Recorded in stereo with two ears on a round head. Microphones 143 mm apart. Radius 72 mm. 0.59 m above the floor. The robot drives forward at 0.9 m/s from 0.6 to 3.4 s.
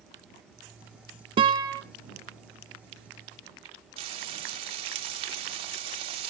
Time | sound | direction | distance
1.4 | a guitar | 35° right (ahead or behind) | 0.7 m
4.0 | frying | 35° right (ahead or behind) | 1.0 m